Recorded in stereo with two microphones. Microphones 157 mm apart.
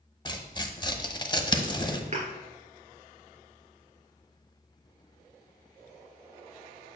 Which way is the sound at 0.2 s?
30° left (ahead or behind).